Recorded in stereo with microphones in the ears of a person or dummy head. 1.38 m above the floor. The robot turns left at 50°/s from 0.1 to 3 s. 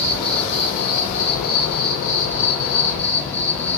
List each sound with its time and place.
0.0 s an insect: 160° left, 1.7 m; by 3.8 s 15° left, 1.7 m